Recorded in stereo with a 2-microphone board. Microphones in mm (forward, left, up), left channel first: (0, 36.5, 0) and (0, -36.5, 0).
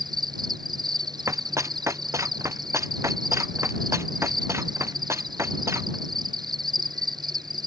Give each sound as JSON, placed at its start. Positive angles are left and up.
{"t": 0.0, "sound": "an insect", "side_deg": -75}
{"t": 1.3, "sound": "running footsteps", "side_deg": -40}